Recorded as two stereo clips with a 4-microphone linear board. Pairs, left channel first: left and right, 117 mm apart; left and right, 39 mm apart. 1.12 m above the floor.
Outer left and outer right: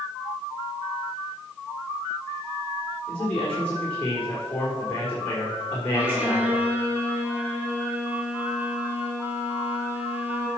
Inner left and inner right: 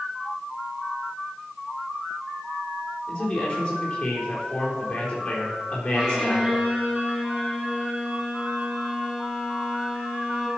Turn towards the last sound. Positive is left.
turn(degrees=-15)  # may be behind; listen again after turning